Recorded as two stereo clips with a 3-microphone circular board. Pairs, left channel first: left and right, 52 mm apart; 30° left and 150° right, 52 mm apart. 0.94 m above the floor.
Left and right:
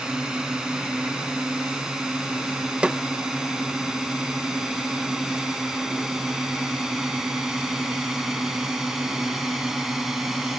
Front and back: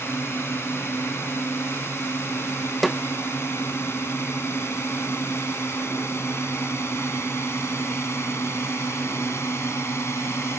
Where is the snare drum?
55° right.